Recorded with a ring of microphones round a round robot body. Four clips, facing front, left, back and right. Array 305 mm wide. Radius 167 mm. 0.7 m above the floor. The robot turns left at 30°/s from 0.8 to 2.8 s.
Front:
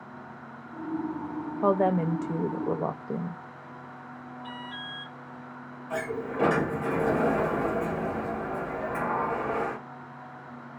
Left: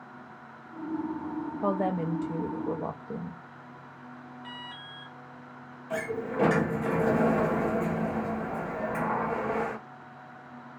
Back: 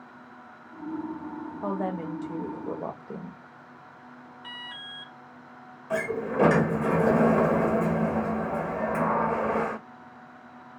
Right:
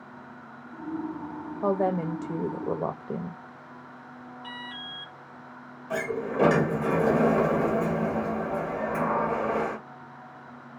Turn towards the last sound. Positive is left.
turn(degrees=-155)